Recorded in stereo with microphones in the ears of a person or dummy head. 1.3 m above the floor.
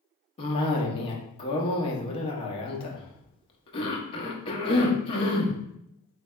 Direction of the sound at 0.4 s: 25° left (ahead or behind).